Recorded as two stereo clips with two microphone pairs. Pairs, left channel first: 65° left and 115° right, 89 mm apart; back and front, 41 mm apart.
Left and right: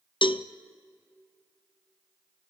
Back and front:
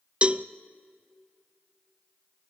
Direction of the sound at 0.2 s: 60° left.